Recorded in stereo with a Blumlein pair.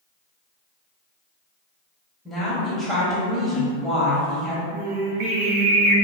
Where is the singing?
50° right, 0.5 m.